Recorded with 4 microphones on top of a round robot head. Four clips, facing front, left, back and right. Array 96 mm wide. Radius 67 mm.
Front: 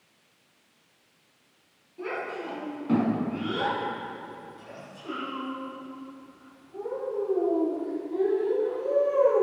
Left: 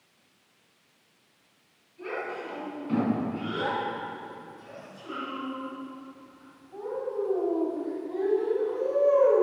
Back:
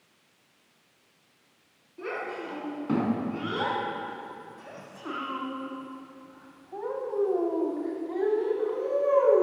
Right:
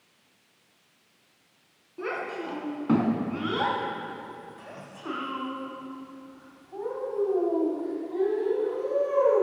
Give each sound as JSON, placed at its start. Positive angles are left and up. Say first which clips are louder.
{"t": 2.0, "sound": "a child speaking", "louder": "right 2 dB, front 1 dB", "azimuth_deg": -100, "distance_m": 4.0}